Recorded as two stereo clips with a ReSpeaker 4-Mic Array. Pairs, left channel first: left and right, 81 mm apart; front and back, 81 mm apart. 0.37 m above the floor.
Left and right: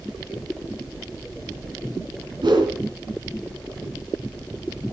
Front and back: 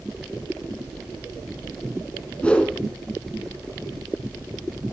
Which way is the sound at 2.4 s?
75° right.